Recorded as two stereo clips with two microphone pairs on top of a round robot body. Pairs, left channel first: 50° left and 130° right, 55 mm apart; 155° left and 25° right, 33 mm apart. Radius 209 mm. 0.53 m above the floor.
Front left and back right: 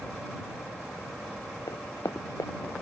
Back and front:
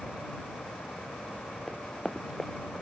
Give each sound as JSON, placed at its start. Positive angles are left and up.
{"t": 1.7, "sound": "running footsteps", "azimuth_deg": 70}